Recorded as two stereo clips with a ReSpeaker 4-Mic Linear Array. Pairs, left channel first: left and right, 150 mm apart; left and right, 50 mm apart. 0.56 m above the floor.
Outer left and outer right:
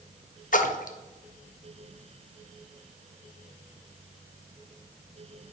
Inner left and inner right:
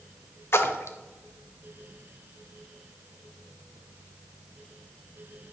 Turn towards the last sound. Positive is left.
turn(degrees=65)  # may be behind; listen again after turning